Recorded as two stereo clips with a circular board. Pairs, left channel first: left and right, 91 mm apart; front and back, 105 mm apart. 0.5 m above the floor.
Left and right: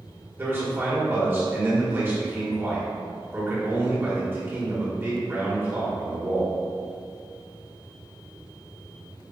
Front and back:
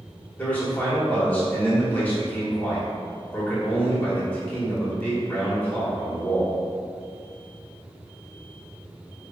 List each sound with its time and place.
0.4 s a man speaking: 55° right, 1.1 m